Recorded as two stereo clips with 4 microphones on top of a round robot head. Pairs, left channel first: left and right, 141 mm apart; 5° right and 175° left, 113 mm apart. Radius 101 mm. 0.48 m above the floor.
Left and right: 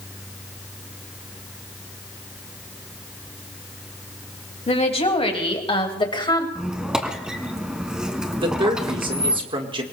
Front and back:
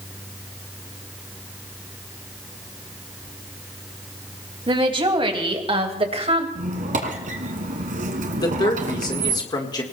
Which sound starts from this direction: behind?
A squeak, at 6.5 s.